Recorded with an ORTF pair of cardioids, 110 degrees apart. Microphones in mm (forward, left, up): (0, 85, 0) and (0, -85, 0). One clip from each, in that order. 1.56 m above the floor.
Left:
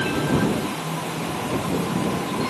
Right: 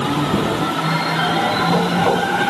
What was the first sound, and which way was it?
Only background noise.